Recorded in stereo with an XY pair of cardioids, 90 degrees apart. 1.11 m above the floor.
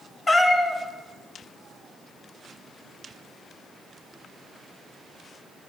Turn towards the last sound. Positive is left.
turn(degrees=30)